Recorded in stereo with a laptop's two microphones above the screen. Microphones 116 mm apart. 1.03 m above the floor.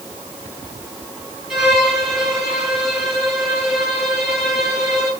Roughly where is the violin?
Centre.